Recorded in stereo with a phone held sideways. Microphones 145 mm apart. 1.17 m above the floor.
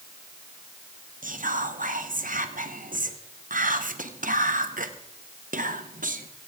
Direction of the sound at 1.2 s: 70° right (ahead or behind).